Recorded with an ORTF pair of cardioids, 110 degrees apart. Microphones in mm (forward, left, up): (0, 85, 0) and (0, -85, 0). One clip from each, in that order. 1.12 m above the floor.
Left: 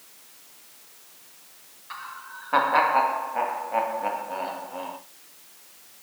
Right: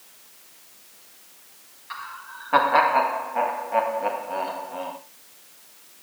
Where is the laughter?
10° right, 1.4 m.